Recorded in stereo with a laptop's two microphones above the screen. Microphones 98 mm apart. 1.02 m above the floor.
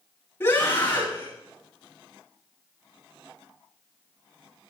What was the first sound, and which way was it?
A scream, 25° left (ahead or behind).